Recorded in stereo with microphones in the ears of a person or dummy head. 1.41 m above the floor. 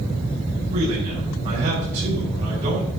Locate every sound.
0.7 s a man speaking: 25° right (ahead or behind), 6.5 m